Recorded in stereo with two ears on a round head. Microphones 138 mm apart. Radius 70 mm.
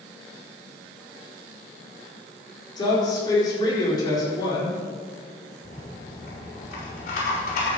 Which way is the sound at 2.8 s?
30° left (ahead or behind).